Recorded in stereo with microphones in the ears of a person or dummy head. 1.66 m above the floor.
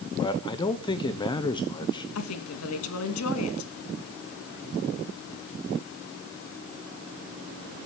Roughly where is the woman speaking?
Left.